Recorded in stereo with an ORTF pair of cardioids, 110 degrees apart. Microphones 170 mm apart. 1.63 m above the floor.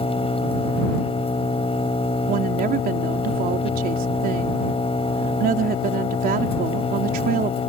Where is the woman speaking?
60° right.